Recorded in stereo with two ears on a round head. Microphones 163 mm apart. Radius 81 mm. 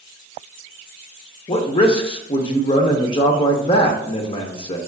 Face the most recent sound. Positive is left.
turn(degrees=30)  # may be behind; listen again after turning